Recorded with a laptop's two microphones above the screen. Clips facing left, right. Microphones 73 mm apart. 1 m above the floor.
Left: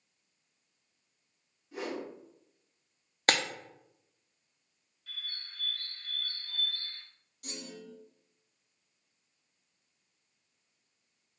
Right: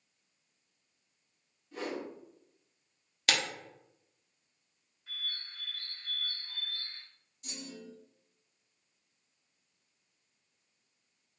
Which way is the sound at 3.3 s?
45° left (ahead or behind).